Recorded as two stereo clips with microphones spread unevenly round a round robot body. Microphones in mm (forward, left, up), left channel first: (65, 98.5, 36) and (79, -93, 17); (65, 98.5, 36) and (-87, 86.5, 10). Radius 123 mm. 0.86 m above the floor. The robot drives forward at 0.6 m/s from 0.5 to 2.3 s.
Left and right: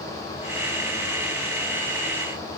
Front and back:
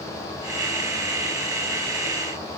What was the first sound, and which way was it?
Only background noise.